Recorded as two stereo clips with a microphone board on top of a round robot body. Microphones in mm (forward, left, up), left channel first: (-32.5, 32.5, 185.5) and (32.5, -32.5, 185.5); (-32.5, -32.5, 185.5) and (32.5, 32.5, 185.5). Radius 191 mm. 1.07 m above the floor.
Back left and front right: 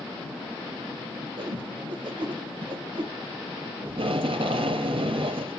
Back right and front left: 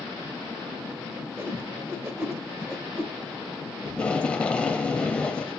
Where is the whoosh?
20° right, 1.4 m.